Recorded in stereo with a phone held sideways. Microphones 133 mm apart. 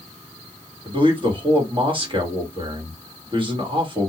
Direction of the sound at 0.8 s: 40° right (ahead or behind).